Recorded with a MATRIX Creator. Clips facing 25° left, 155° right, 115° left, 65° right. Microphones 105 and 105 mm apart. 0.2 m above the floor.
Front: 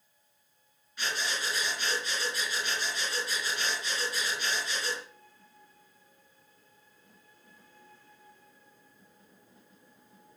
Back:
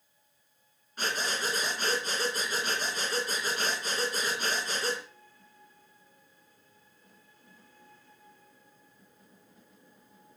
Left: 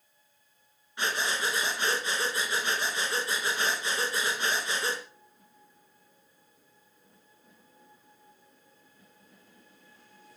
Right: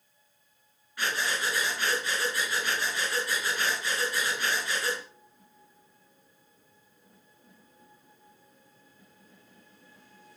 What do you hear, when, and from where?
1.0 s breathing: 175° left, 2.5 m